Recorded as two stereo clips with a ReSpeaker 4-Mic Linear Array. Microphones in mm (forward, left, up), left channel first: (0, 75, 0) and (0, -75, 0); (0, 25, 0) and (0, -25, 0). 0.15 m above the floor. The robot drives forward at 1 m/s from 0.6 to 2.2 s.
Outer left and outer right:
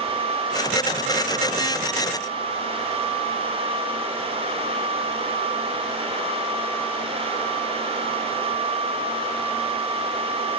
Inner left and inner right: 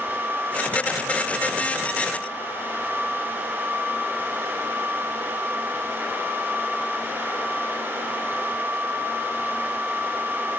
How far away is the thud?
No thud in this recording.